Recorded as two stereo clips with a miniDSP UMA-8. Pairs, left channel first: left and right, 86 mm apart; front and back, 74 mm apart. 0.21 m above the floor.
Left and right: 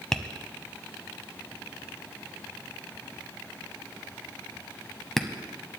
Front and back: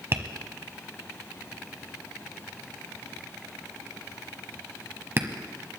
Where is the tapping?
170° left, 1.1 m.